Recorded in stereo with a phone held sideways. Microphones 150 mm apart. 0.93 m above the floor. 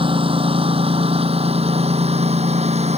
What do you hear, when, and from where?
0.0 s a lawn mower: 40° right (ahead or behind); by 3.0 s 50° right (ahead or behind)